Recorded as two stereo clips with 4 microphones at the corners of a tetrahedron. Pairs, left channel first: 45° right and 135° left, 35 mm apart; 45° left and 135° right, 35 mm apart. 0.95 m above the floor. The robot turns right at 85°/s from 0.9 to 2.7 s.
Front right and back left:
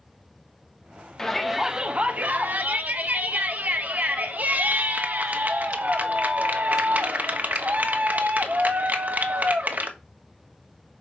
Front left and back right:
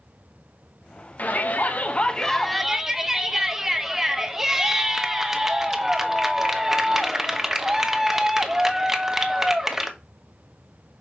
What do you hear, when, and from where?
1.2 s a shout: 25° left, 1.2 m; by 9.9 s 150° left, 1.2 m